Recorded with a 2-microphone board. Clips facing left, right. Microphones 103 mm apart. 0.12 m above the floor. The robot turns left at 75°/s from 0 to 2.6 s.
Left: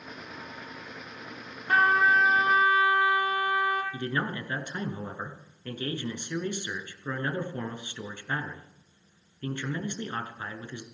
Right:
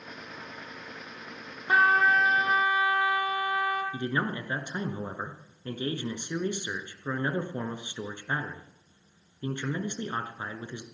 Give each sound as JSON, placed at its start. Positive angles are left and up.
{"t": 1.7, "sound": "a trumpet", "azimuth_deg": -160, "distance_m": 2.0}
{"t": 3.9, "sound": "a man speaking", "side_deg": -20, "distance_m": 1.2}